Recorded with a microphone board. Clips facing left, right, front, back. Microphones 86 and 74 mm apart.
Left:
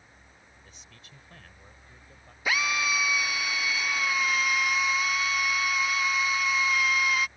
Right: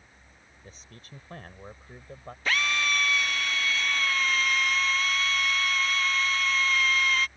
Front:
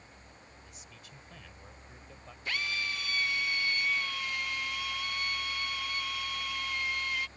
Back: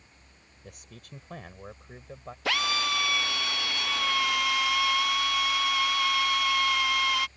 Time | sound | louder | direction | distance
0.6 | a man speaking | right 4 dB, back 4 dB | 145° right | ?
2.5 | a drill | even, back 7 dB | 170° left | ?